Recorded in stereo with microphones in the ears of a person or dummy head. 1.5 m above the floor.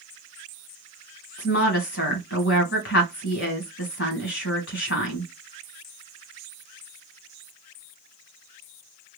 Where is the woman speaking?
65° left (ahead or behind), 1.4 m.